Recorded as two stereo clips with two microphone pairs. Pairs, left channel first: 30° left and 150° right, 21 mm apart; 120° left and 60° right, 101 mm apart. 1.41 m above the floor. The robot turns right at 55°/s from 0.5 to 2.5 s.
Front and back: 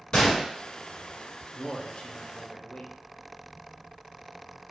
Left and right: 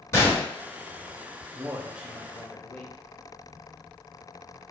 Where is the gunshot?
60° left, 1.4 m.